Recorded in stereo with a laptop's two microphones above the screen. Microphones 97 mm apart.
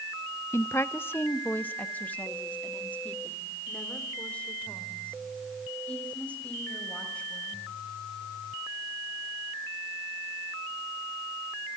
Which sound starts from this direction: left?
A woman speaking, at 0.5 s.